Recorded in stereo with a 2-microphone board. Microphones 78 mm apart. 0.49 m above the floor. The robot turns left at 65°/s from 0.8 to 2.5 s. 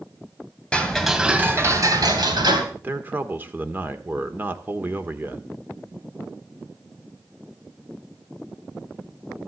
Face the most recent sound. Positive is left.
turn(degrees=-25)  # may be behind; listen again after turning